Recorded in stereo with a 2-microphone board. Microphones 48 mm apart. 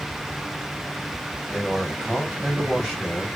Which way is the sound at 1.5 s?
5° right (ahead or behind).